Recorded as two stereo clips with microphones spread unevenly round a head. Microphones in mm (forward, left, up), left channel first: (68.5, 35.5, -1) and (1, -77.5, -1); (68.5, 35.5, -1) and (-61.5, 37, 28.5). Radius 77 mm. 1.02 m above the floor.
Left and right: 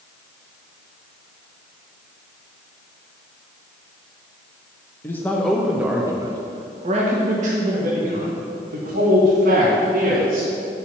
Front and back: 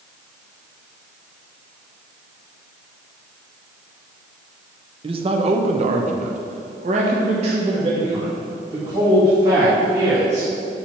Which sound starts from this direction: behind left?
A man speaking, at 5.0 s.